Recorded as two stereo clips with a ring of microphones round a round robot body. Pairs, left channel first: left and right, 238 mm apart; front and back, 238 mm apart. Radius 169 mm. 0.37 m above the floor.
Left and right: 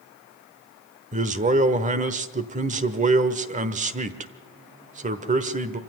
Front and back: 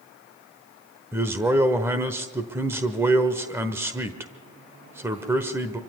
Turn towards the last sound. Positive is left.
turn(degrees=-110)